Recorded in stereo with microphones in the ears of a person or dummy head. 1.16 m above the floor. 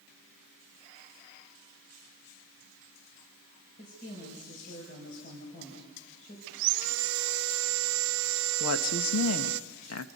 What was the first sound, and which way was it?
A woman speaking, 50° left (ahead or behind).